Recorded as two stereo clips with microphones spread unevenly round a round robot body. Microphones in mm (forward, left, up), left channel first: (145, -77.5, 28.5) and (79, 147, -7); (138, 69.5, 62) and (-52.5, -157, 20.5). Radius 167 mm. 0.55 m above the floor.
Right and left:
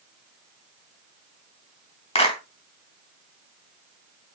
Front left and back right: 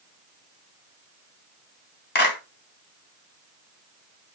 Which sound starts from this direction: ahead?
A clap, at 2.1 s.